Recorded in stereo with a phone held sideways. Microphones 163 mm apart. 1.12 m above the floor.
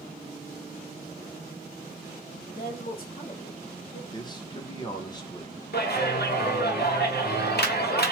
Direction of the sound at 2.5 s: 70° left (ahead or behind).